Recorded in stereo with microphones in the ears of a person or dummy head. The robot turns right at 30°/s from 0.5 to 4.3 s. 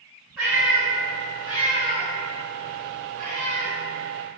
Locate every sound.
0.4 s a cat meowing: centre (ahead or behind), 1.2 m; by 3.7 s 60° right (ahead or behind), 1.2 m